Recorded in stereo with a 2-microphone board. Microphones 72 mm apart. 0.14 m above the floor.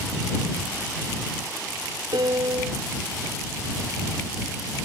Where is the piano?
85° right.